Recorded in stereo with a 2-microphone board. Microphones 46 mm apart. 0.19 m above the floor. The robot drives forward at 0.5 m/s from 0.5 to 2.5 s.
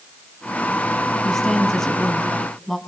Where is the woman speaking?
10° left (ahead or behind), 1.7 m; by 2.8 s 5° left (ahead or behind), 2 m.